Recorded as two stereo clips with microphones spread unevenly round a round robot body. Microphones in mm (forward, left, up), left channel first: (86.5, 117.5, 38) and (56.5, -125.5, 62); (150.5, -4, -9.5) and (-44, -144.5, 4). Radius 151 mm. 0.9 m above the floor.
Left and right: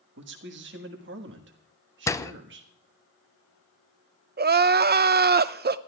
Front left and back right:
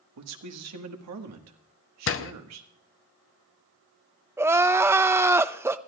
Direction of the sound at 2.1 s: 5° left.